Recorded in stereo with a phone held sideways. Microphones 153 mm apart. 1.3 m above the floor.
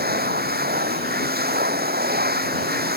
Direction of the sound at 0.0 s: 85° right.